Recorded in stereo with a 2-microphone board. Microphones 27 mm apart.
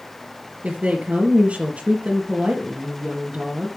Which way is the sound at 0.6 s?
55° right (ahead or behind).